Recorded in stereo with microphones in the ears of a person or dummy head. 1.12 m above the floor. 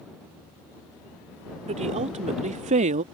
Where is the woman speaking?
35° right (ahead or behind); by 3.0 s 40° right (ahead or behind).